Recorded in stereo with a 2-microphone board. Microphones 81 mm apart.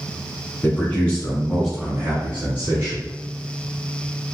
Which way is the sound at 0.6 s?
25° left (ahead or behind).